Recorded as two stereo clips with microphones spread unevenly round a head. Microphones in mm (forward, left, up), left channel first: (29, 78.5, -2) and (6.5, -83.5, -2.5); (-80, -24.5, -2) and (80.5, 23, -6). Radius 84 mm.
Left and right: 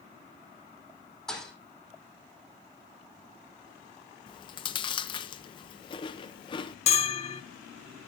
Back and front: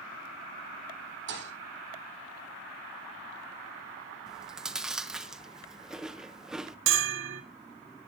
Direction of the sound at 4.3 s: 95° left.